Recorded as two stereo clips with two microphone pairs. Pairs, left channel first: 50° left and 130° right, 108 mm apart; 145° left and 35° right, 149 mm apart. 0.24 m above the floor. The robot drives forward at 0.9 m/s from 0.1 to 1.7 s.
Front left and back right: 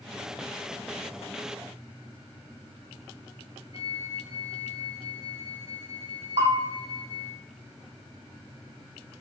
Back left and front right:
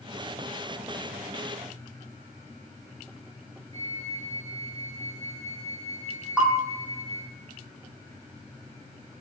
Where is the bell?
120° right, 5 m.